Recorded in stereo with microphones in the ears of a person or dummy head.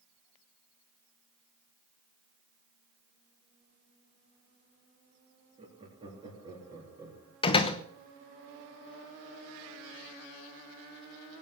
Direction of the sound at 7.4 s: 25° left (ahead or behind).